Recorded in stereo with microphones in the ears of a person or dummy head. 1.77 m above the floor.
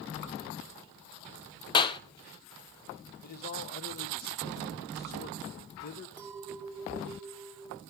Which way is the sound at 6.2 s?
Centre (ahead or behind).